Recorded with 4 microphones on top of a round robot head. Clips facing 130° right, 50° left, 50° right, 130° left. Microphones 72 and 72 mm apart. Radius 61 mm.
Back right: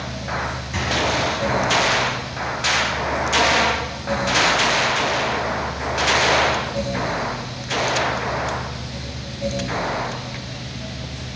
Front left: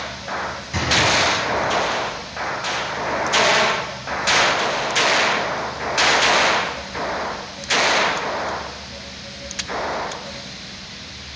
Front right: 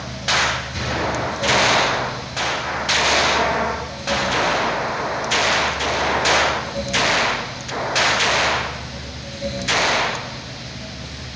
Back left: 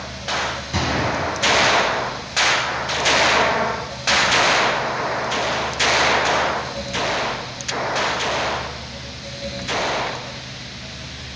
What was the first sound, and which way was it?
A gunshot, 135° left.